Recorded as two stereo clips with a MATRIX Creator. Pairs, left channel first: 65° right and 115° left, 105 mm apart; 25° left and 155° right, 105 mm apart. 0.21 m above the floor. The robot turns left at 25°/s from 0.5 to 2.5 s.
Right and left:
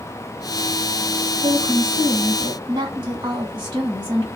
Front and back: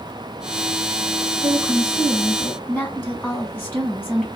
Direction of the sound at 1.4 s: 120° left.